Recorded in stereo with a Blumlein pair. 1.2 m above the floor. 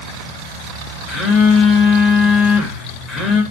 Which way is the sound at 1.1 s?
20° left.